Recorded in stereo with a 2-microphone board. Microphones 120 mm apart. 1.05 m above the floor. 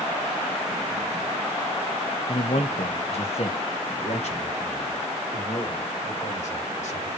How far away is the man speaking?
About 1.0 m.